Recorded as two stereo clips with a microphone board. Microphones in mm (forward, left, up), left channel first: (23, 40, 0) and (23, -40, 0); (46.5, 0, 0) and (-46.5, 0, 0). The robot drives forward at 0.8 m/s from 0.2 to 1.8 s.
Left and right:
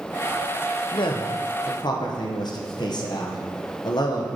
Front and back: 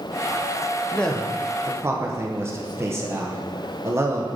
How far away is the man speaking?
About 1.0 m.